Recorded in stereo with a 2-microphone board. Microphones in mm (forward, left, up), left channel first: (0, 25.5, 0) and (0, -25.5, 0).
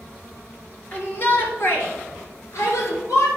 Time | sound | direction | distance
0.9 | a shout | 35° left (ahead or behind) | 2.5 m